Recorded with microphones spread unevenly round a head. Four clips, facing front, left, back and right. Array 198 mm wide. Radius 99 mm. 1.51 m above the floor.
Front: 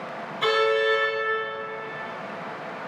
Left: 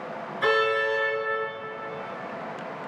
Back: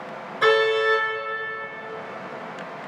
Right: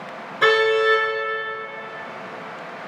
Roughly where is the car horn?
Right.